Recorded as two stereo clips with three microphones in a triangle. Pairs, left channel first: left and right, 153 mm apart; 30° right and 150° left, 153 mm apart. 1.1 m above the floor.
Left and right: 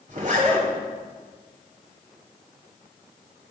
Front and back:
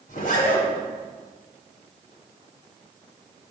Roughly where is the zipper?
Ahead right.